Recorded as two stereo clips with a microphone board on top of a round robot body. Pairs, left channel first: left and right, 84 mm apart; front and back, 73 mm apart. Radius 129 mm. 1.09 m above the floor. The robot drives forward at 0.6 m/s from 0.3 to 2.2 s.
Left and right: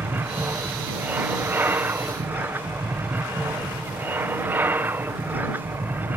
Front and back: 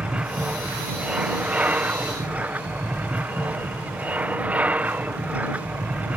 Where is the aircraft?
125° right; by 6.2 s 130° right.